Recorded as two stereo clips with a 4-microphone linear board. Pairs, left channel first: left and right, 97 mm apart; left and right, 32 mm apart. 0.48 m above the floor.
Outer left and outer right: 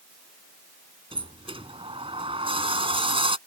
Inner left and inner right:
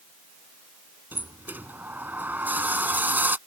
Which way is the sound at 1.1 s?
75° right (ahead or behind).